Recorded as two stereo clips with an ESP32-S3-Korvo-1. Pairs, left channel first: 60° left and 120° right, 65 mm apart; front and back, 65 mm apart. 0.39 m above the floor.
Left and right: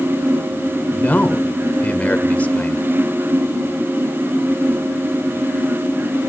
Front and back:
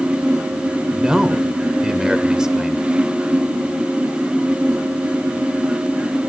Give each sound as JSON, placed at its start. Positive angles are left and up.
{"t": 0.9, "sound": "a man speaking", "azimuth_deg": 110, "distance_m": 1.1}